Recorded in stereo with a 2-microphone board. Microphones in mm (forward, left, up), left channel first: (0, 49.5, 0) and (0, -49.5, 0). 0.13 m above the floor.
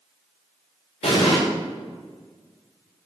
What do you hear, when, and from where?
1.0 s an explosion: 80° left, 3 m